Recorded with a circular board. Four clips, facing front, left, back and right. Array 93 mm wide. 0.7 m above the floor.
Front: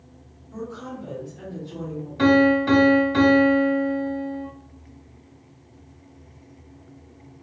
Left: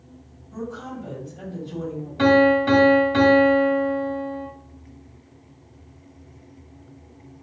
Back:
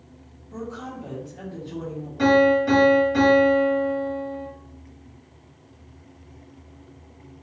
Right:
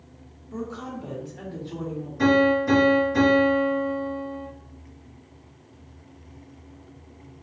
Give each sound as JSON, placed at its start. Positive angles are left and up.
{"t": 0.5, "sound": "a woman speaking", "azimuth_deg": -105, "distance_m": 1.6}
{"t": 2.2, "sound": "a piano", "azimuth_deg": 55, "distance_m": 1.3}